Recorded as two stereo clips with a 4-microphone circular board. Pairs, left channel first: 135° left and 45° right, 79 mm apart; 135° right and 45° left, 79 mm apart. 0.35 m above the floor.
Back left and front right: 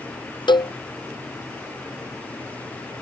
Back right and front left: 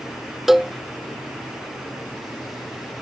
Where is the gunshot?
I don't hear a gunshot.